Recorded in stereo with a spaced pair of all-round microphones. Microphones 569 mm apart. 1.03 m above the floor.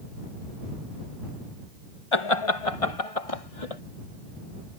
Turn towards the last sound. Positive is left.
turn(degrees=75)  # may be behind; listen again after turning